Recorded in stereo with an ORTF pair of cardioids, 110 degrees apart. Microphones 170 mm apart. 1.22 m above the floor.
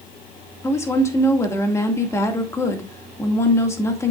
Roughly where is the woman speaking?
Ahead.